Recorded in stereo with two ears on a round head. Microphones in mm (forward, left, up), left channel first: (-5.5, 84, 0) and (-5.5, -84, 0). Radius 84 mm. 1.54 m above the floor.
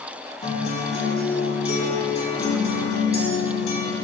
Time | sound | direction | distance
0.4 | a guitar | 35° left (ahead or behind) | 1.6 m